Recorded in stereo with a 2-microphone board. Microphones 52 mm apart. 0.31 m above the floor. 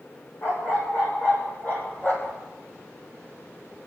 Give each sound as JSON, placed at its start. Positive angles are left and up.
{"t": 0.4, "sound": "a dog barking", "side_deg": 55, "distance_m": 5.5}